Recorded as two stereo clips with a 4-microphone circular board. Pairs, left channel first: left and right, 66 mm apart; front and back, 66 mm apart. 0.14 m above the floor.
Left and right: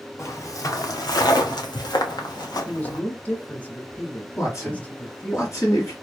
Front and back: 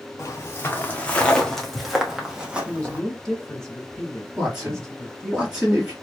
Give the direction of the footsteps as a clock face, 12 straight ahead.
10 o'clock.